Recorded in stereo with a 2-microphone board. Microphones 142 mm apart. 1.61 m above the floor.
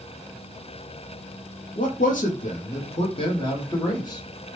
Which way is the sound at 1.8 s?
75° left (ahead or behind).